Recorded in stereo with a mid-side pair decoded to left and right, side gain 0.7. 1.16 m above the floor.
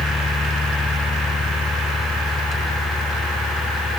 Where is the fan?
15° left.